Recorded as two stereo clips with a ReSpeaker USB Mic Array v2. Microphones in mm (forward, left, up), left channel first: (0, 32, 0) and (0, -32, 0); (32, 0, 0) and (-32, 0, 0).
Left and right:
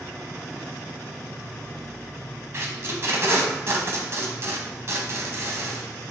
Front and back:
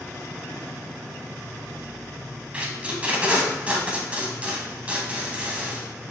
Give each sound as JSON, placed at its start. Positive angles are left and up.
{"t": 2.5, "sound": "tape being pulled", "azimuth_deg": -120, "distance_m": 0.9}